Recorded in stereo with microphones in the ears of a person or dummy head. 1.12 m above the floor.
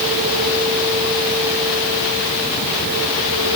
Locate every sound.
Only background noise.